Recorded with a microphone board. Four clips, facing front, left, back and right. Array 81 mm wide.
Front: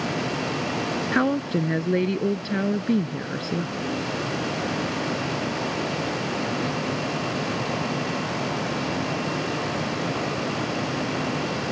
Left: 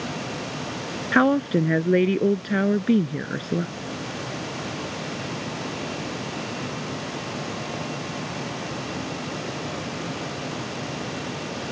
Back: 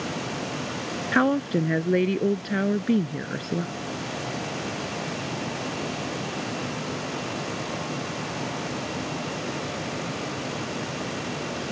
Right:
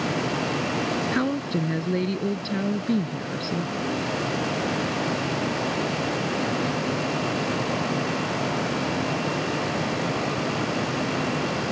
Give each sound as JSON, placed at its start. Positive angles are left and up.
{"t": 1.1, "sound": "a woman speaking", "azimuth_deg": 100}